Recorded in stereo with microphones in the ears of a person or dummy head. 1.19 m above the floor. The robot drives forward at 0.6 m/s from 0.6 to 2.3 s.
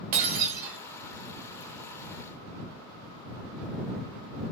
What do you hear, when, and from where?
0.1 s breaking glass: 45° right (ahead or behind), 0.9 m; by 0.8 s 50° right (ahead or behind), 0.8 m